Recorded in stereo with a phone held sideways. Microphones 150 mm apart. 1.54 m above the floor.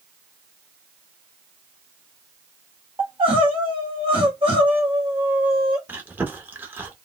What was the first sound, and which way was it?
Crying, 35° right (ahead or behind).